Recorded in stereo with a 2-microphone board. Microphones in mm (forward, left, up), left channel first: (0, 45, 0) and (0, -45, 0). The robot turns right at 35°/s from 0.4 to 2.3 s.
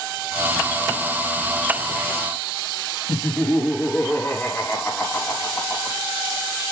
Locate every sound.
3.1 s laughter: 15° left (ahead or behind), 3 m